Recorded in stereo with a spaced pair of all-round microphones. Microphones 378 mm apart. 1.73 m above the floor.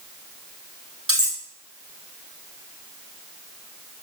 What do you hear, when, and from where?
1.1 s cutlery clinking: 35° right (ahead or behind), 3 m